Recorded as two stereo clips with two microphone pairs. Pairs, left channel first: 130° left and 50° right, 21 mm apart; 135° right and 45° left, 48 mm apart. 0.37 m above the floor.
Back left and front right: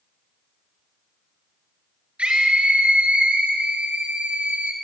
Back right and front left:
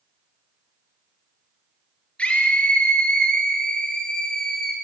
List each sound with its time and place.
2.2 s a scream: 70° right, 5.5 m; by 4.7 s 55° right, 6.5 m